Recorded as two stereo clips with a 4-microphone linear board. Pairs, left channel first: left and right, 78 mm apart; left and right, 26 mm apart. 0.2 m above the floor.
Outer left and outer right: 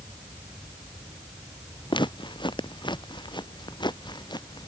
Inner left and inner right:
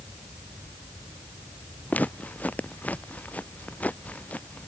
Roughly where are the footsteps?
Left.